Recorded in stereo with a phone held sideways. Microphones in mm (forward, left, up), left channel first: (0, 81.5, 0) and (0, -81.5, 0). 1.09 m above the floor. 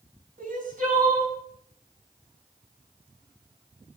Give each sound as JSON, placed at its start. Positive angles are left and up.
{"t": 0.4, "sound": "crying", "side_deg": -55, "distance_m": 5.5}